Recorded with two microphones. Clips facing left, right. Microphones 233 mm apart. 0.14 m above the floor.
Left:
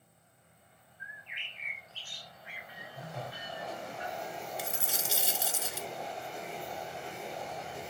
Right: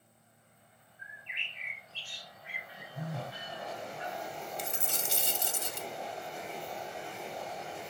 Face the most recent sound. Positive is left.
turn(degrees=5)  # may be behind; listen again after turning